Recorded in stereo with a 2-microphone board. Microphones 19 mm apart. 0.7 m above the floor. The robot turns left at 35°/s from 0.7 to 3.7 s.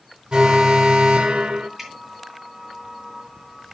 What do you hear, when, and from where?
0.3 s an alarm: 60° right, 1.2 m; by 1.7 s 95° right, 1.2 m
1.8 s dripping: centre (ahead or behind), 3.5 m; by 1.9 s 5° left (ahead or behind), 3.5 m